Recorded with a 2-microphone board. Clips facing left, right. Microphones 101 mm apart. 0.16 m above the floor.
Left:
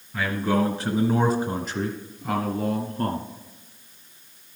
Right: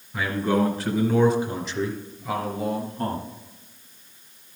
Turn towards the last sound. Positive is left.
turn(degrees=50)  # may be behind; listen again after turning